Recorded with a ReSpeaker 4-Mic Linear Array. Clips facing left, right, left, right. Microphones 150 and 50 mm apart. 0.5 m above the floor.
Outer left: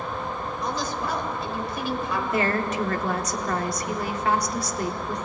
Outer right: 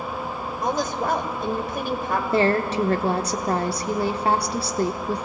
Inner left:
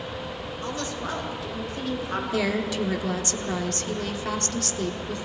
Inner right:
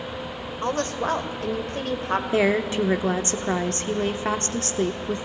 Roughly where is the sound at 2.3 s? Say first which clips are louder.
Outer right 5 dB, inner right 5 dB; right.